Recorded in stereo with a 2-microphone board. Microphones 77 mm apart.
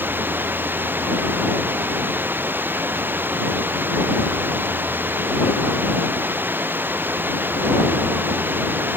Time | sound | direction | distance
0.0 | running water | 30° right (ahead or behind) | ?